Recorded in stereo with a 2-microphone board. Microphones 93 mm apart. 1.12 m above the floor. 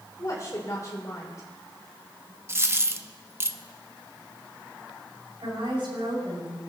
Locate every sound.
0.2 s a woman speaking: 40° left (ahead or behind), 3.5 m
2.5 s a dropped coin: 30° right (ahead or behind), 0.7 m
5.4 s a woman speaking: 65° right (ahead or behind), 7 m